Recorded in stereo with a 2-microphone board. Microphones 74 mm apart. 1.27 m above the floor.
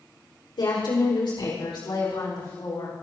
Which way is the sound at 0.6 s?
75° left (ahead or behind).